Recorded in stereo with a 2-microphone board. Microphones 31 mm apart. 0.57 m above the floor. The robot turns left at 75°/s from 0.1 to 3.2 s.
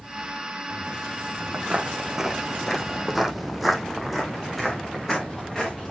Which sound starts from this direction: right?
Footsteps, at 1.5 s.